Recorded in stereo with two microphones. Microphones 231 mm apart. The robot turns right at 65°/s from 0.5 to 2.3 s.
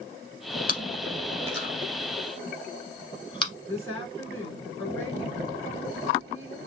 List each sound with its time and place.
0.7 s chewing: 40° left (ahead or behind), 1.4 m; by 3.5 s 20° left (ahead or behind), 1.4 m
3.7 s a woman speaking: 10° left (ahead or behind), 2.5 m